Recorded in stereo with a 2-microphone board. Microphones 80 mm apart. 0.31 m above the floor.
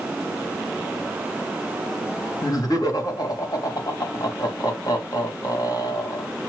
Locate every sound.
2.4 s laughter: 50° left (ahead or behind), 2.5 m